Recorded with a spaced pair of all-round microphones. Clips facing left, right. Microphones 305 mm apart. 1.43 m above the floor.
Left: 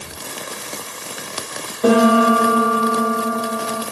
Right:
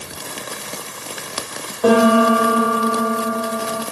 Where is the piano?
25° left (ahead or behind), 2 m.